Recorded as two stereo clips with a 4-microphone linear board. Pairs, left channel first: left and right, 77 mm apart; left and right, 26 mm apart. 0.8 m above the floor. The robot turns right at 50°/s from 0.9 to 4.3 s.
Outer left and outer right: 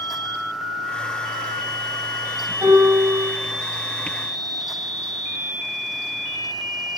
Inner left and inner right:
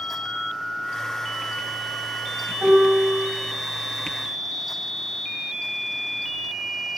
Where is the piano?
130° right, 4 m; by 3.3 s 95° right, 4 m.